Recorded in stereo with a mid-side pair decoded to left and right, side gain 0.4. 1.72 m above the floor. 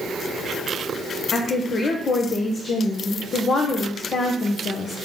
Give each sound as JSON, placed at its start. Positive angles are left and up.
{"t": 1.3, "sound": "a woman speaking", "azimuth_deg": 55, "distance_m": 1.4}